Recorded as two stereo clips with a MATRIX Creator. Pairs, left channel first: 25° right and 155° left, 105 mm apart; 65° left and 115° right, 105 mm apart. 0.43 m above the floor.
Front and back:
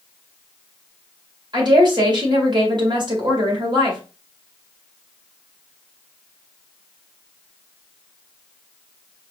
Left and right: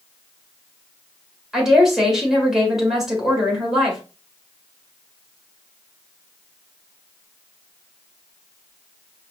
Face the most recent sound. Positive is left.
turn(degrees=160)